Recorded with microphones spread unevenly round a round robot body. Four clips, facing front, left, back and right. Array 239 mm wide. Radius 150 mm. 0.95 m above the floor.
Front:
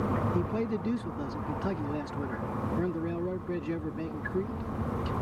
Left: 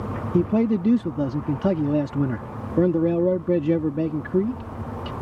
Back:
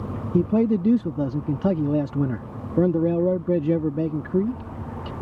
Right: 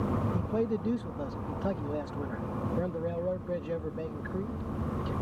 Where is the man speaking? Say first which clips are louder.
Left 10 dB, back 10 dB; 135° left.